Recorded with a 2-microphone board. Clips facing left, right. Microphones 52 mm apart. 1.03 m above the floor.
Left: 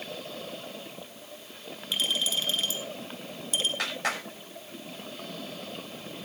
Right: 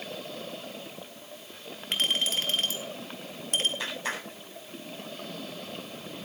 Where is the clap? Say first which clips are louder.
Left 2 dB; 85° left, 6.5 m.